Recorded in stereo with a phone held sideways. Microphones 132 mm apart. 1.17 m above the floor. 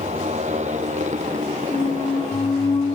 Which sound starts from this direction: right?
A motorcycle, at 0.0 s.